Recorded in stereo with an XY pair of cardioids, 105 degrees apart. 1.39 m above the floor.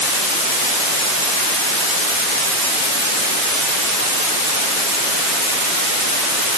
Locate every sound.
Only background noise.